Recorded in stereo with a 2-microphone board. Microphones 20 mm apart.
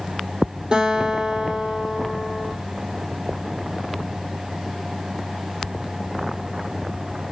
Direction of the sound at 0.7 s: 50° right (ahead or behind).